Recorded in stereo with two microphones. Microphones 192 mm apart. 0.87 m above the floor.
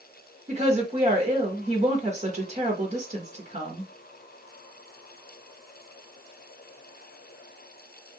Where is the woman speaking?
35° right (ahead or behind), 1.2 m.